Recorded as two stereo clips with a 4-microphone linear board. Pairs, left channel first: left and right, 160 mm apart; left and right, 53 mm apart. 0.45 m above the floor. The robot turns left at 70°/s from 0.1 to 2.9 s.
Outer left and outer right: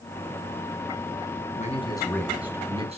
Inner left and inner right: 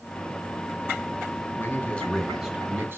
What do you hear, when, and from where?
1.6 s a man speaking: 50° left, 3 m; by 3.0 s 40° right, 3 m